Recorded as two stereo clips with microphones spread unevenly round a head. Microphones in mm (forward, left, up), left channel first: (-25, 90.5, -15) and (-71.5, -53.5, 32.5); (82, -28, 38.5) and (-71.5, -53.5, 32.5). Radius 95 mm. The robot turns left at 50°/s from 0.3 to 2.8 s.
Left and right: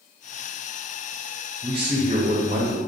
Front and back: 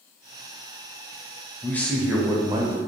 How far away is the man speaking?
About 0.5 m.